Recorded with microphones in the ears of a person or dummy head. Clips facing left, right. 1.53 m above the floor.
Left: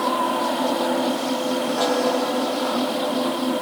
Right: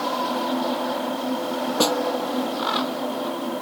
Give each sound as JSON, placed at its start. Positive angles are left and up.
{"t": 1.8, "sound": "a snare drum", "side_deg": -65}